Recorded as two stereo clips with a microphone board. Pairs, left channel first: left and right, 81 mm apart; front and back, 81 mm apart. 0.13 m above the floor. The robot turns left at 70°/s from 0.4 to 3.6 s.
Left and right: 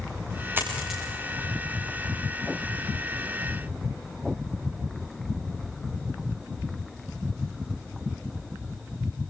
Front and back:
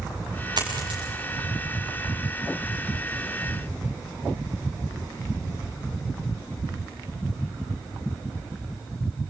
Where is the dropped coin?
150° right, 8 m; by 1.0 s straight behind, 8 m.